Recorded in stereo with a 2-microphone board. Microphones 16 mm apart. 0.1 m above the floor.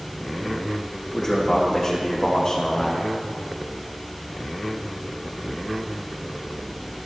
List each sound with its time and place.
1.1 s a man speaking: 25° left (ahead or behind), 6 m; by 3.0 s 45° left (ahead or behind), 4.5 m